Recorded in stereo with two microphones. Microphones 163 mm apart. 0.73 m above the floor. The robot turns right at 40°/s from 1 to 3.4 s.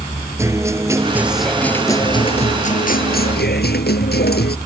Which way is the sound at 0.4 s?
15° right.